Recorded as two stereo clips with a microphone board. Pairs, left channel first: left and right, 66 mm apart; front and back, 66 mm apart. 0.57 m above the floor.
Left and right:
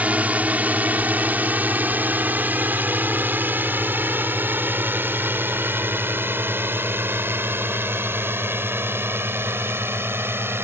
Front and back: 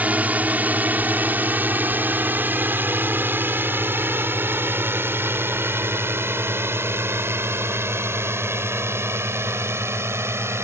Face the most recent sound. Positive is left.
turn(degrees=-135)